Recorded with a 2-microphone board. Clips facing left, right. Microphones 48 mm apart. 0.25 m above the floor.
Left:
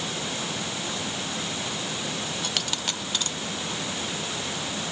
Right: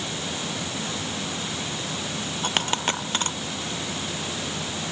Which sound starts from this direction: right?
A dropped coin, at 2.4 s.